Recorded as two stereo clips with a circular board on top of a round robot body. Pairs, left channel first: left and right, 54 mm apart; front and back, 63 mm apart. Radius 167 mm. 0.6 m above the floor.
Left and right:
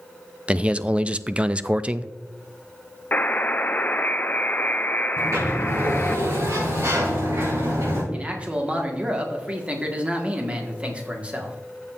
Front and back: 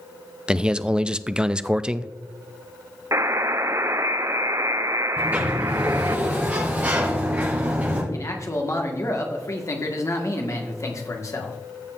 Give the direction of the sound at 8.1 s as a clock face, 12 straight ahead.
1 o'clock.